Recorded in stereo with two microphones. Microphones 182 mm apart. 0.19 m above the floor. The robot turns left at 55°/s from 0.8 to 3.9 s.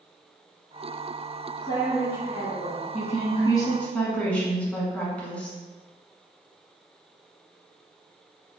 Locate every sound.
1.6 s a woman speaking: 155° left, 1.6 m; by 2.8 s 90° left, 1.6 m
2.9 s a woman speaking: 65° left, 1.5 m; by 5.6 s 10° left, 1.5 m